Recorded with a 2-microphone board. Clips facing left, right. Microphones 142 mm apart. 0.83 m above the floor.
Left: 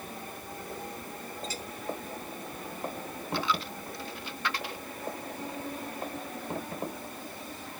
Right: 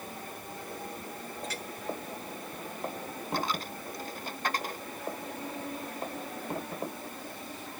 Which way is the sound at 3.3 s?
45° right (ahead or behind).